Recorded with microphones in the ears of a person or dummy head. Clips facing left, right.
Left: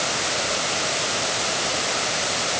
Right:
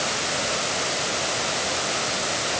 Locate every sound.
Only background noise.